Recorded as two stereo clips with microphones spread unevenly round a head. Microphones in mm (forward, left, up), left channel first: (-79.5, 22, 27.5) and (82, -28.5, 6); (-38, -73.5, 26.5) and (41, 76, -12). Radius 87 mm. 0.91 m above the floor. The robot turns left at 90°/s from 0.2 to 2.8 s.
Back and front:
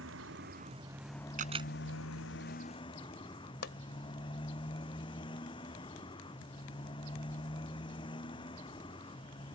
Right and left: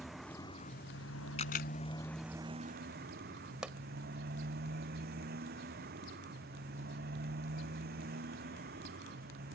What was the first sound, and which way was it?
A motorcycle, 30° right.